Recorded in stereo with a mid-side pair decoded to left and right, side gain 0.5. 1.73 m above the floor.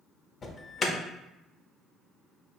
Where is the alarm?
40° left, 0.5 m.